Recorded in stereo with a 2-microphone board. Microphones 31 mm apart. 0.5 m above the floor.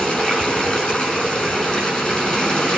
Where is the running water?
30° left (ahead or behind), 5.5 m.